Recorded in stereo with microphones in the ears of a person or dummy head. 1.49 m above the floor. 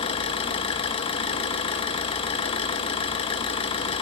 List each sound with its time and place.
0.0 s an engine running: 35° left (ahead or behind), 1.1 m